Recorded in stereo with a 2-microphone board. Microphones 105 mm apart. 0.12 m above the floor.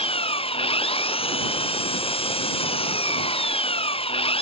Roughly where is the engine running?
Left.